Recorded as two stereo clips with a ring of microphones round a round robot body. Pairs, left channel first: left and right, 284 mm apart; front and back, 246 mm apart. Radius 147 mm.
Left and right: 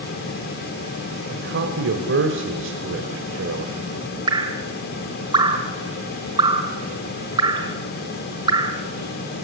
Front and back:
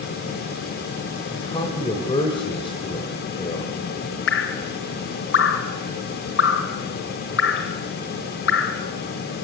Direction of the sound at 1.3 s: 65° right.